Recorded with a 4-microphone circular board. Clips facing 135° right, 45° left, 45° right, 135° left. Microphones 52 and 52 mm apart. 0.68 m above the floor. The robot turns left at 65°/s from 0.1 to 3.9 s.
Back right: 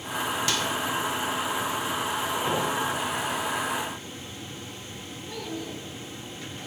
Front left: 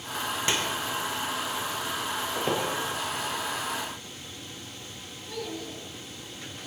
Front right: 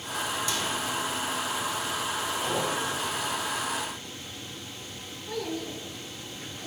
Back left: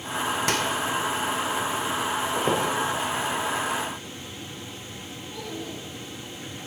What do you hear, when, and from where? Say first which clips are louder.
0.5 s a microwave: back right 1 dB, back left 5 dB; 110° left, 2 m; by 0.7 s 95° left, 2 m
2.4 s a squeak: even, back left 6 dB; 110° left, 7 m; by 2.7 s 90° left, 7 m
5.3 s a child speaking: back right 1 dB, front right 3 dB; 50° right, 7 m